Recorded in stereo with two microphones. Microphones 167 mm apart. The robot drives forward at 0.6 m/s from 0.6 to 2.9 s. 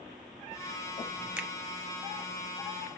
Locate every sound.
1.4 s a finger snap: 5° right (ahead or behind), 1.4 m